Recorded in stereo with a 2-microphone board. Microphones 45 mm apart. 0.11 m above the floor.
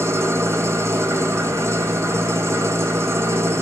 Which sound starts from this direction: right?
An engine running, at 0.0 s.